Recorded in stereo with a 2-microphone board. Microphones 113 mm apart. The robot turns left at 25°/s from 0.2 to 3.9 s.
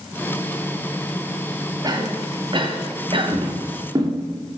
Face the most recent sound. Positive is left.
turn(degrees=-35)  # may be behind; listen again after turning